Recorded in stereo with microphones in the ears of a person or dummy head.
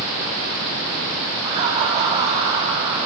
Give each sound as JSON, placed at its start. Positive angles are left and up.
{"t": 1.4, "sound": "laughter", "side_deg": -35, "distance_m": 3.5}